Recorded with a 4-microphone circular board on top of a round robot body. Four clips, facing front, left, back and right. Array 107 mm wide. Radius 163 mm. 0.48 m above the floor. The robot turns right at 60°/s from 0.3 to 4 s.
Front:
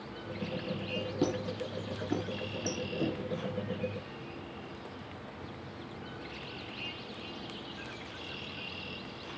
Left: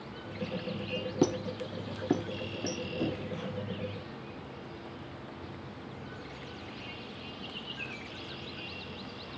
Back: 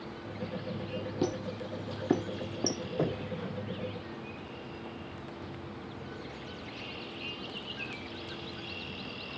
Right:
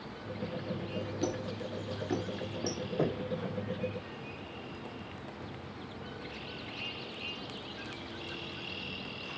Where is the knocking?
135° right, 3 m; by 3.4 s 115° right, 3 m.